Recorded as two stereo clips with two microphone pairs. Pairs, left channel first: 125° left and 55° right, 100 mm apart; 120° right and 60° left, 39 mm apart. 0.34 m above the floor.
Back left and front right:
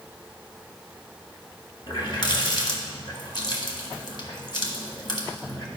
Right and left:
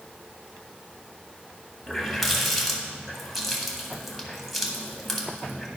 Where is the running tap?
150° left, 1.4 m.